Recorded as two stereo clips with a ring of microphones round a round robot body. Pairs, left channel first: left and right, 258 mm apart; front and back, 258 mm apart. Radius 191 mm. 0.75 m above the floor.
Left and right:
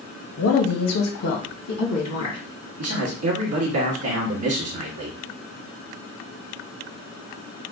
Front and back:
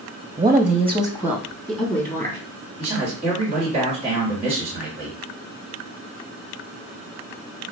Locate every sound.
0.4 s a woman speaking: 115° left, 0.6 m; by 2.4 s 60° left, 1.8 m
2.8 s a man speaking: 110° right, 1.6 m